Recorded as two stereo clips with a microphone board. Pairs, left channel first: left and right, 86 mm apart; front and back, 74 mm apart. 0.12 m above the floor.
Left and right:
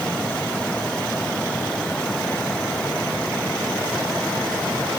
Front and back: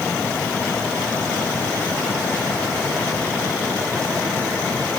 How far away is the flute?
No flute in this recording.